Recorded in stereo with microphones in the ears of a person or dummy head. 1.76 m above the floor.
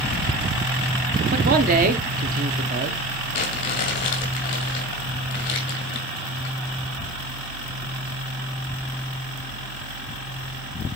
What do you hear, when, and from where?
1.3 s a man speaking: 45° right (ahead or behind), 1.4 m
3.3 s crumpling: 25° left (ahead or behind), 1.7 m